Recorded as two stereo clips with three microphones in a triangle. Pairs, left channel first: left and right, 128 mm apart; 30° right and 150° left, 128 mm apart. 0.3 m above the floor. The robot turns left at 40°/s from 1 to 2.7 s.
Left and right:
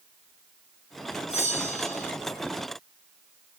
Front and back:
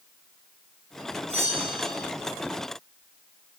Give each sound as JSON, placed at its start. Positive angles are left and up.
{"t": 1.3, "sound": "a bell", "azimuth_deg": 120, "distance_m": 2.5}